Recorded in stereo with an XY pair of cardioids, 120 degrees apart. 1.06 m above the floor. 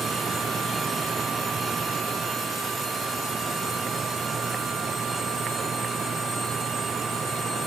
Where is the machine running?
35° right.